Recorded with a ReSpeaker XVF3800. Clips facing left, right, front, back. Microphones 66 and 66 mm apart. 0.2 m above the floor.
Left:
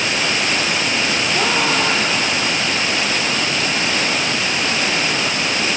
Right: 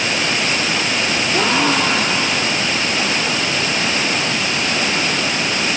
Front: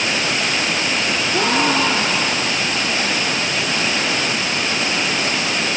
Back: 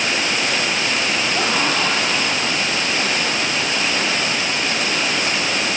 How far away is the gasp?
About 3 m.